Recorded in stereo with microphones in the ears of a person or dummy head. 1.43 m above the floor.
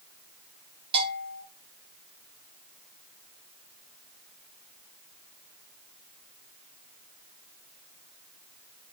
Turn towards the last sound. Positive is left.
turn(degrees=-25)  # may be behind; listen again after turning